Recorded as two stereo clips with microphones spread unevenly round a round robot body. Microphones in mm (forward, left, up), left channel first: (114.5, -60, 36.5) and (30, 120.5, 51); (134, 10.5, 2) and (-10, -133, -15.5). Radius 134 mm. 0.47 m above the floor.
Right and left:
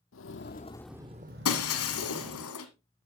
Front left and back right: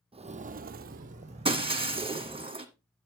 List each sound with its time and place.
0.1 s footsteps: 70° right, 0.8 m; by 2.5 s 145° left, 1.8 m
1.4 s breaking glass: 70° right, 2 m